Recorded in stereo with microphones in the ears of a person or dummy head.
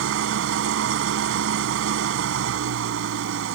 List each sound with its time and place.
0.0 s an engine running: 75° right (ahead or behind)